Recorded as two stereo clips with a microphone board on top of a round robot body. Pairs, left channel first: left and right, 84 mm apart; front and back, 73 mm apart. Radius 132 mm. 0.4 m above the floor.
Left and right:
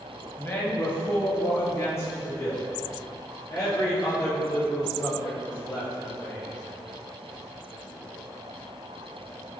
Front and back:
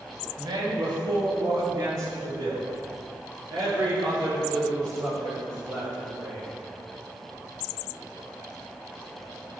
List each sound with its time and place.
0.4 s a man speaking: 155° left, 3 m; by 6.5 s 145° left, 12 m